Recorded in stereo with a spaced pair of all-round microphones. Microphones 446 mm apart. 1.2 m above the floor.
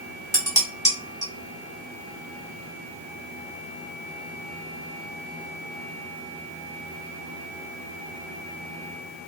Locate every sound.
0.3 s dishes clattering: 5° left (ahead or behind), 2.5 m